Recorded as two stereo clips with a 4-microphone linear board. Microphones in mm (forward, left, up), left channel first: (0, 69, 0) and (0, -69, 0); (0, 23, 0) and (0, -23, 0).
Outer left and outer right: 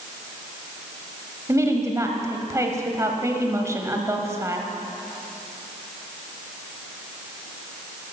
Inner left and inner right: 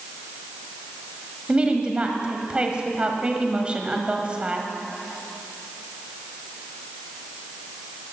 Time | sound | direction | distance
1.5 | a woman speaking | 20° right (ahead or behind) | 1.4 m